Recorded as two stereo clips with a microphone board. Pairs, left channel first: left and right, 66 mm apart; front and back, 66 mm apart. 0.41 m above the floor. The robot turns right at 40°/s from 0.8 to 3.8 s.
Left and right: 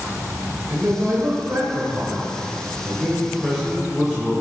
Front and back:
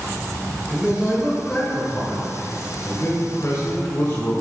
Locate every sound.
0.7 s a man speaking: 120° right, 1.5 m; by 4.3 s straight ahead, 1.5 m